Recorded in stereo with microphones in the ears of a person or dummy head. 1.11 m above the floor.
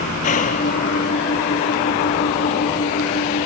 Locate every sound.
0.0 s an engine running: 45° left (ahead or behind)